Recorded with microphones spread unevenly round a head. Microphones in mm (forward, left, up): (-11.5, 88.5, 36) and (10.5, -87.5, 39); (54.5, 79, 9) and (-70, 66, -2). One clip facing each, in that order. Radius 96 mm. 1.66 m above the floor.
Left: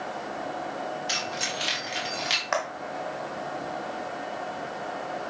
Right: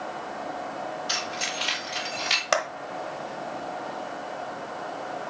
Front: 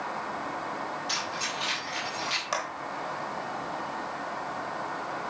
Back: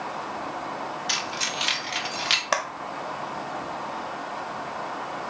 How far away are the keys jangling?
About 3.5 m.